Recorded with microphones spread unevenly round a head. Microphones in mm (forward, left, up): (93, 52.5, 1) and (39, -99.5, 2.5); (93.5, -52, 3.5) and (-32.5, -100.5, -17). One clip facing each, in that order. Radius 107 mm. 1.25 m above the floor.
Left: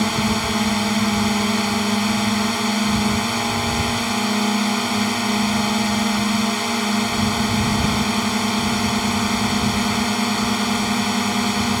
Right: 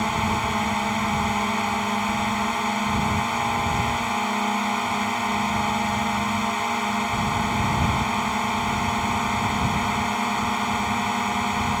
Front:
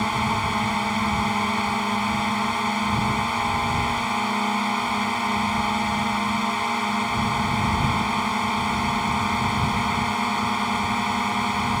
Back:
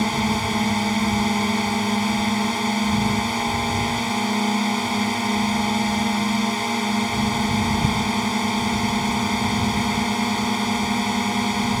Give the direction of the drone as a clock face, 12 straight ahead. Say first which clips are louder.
Left 4 dB, back 2 dB; 8 o'clock.